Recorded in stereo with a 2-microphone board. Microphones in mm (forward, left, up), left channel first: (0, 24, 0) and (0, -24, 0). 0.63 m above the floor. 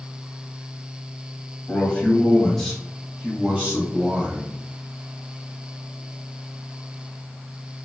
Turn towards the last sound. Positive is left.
turn(degrees=-40)  # may be behind; listen again after turning